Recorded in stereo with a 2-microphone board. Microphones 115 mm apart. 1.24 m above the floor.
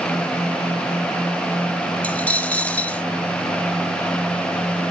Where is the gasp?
No gasp in this recording.